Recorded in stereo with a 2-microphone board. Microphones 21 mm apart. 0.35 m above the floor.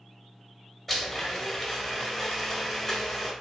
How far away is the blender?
About 1.3 m.